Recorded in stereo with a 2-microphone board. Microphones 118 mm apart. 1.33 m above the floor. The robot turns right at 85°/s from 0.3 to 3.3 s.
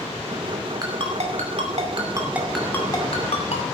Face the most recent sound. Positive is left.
turn(degrees=65)  # may be behind; listen again after turning